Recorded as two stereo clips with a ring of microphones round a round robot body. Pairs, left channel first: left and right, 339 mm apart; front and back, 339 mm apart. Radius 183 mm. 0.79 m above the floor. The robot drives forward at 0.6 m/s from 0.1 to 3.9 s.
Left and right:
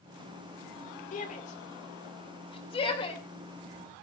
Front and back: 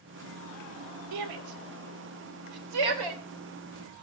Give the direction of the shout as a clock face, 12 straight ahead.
7 o'clock.